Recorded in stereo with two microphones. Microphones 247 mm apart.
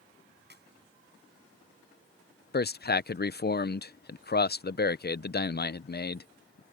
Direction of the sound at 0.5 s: 45° right (ahead or behind).